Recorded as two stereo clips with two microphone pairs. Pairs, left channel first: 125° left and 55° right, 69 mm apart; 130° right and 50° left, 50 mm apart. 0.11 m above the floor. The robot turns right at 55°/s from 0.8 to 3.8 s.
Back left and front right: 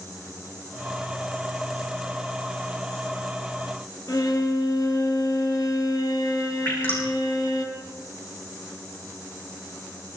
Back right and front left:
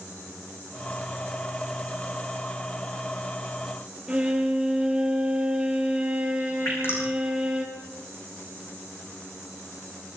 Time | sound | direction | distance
4.1 | a violin | 120° left | 3 m
6.7 | dripping | 170° right | 8.5 m